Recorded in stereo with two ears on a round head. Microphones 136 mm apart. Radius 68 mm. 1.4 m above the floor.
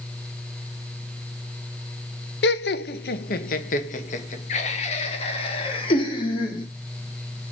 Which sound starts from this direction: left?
Laughter, at 2.4 s.